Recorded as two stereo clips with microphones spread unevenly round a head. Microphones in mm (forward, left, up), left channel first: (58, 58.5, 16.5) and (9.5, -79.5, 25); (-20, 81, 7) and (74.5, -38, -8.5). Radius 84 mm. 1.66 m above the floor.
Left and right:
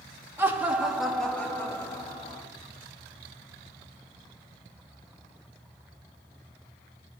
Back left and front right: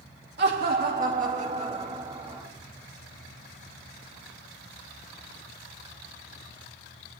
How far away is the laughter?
About 3 m.